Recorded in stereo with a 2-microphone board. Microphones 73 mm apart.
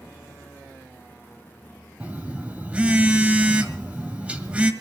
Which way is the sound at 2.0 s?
15° right (ahead or behind).